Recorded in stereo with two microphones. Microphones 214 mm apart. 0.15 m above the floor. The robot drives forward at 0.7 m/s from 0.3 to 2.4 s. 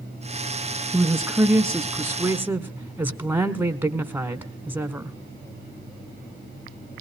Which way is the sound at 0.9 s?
10° right (ahead or behind).